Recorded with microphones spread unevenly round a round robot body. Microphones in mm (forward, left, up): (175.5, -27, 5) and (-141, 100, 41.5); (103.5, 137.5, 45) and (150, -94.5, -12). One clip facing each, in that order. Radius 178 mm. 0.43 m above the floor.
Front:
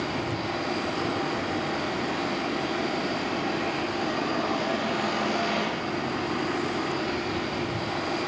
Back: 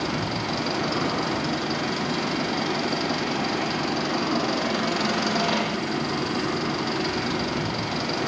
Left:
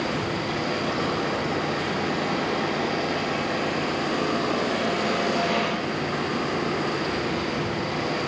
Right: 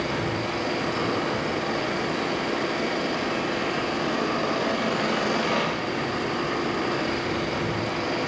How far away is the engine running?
About 7.5 m.